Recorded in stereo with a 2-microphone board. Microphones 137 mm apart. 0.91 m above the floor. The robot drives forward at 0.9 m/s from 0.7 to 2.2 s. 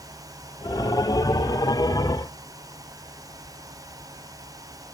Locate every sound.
Only background noise.